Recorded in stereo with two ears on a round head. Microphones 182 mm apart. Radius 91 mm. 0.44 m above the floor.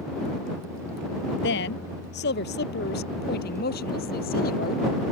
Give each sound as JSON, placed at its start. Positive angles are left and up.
{"t": 1.4, "sound": "a woman speaking", "side_deg": 60}